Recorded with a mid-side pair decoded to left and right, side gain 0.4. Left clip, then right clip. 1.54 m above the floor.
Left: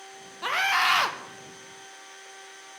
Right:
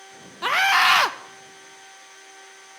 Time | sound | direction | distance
0.4 | a scream | 45° right | 0.6 m